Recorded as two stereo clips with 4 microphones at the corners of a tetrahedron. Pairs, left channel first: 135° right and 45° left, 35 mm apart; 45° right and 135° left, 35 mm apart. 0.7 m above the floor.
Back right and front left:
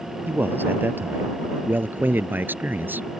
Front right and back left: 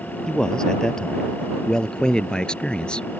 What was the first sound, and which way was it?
A man speaking, 25° left.